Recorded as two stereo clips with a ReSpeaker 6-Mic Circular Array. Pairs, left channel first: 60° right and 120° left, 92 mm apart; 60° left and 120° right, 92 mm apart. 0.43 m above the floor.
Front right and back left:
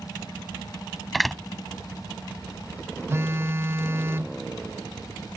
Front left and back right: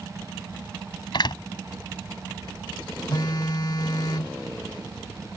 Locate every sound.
1.1 s a door slam: 30° left
3.1 s a phone buzzing: 70° left